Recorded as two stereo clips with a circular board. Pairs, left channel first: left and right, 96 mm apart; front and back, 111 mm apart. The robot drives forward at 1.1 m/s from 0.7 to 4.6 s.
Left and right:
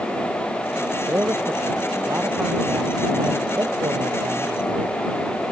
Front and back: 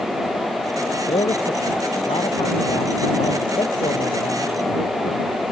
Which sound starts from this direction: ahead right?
A man speaking, at 1.1 s.